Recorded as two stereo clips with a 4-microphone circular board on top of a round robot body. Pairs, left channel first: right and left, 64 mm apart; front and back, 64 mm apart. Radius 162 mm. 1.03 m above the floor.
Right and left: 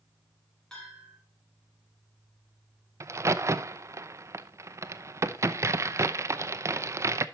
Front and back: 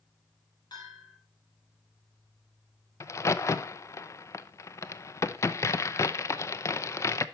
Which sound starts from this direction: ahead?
A bell, at 0.7 s.